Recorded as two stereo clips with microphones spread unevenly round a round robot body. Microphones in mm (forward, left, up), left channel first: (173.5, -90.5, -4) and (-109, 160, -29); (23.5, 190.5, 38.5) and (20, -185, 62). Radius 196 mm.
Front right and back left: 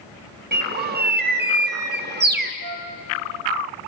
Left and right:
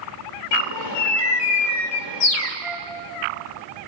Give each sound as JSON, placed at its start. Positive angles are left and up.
{"t": 0.5, "sound": "a bird", "azimuth_deg": 75, "distance_m": 1.4}
{"t": 2.6, "sound": "a flute", "azimuth_deg": -175, "distance_m": 2.5}